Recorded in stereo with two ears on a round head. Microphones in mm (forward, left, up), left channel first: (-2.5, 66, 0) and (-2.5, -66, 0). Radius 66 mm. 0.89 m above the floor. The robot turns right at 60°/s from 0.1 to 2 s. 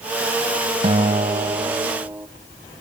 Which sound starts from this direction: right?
A guitar, at 0.8 s.